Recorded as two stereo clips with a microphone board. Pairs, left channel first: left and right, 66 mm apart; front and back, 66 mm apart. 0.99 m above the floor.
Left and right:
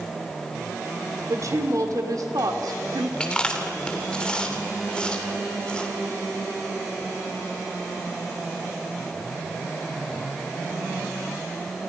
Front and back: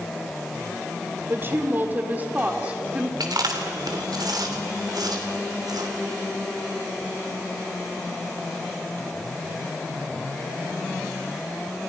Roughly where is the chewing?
Behind.